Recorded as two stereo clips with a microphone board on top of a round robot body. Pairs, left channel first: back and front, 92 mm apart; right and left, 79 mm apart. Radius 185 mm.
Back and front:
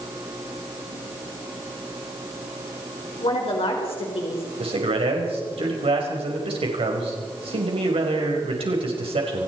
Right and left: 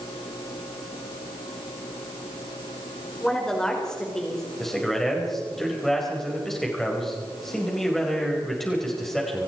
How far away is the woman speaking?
About 4.5 m.